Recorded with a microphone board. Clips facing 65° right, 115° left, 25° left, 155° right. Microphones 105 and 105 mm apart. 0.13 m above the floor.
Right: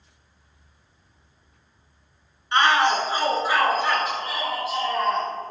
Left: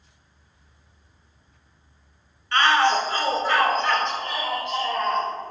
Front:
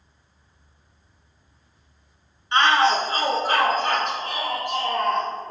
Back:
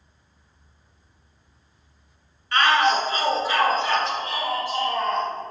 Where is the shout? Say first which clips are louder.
Even, front 1 dB; 15° right, 1.3 m; by 5.3 s 20° left, 2.5 m.